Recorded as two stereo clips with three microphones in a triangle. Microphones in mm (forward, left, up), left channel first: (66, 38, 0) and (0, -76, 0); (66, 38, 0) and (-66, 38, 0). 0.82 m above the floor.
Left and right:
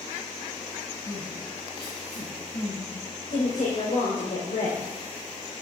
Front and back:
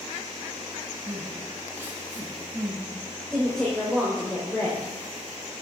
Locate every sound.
1.1 s crying: 110° left, 4 m
3.3 s a woman speaking: 80° left, 3.5 m